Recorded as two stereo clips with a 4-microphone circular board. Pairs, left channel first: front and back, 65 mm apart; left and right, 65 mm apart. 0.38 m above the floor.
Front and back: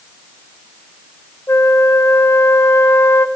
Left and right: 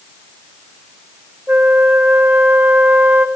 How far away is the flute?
About 0.7 m.